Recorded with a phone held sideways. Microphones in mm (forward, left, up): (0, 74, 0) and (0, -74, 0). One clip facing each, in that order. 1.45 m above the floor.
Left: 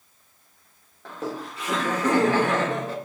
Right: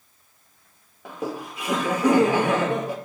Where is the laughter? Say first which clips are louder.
Right 1 dB; 15° right (ahead or behind), 0.6 m.